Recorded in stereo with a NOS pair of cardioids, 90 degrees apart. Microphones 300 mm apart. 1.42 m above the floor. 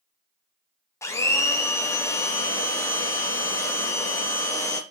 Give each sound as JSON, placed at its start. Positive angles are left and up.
{"t": 1.0, "sound": "a blender", "azimuth_deg": 10, "distance_m": 0.5}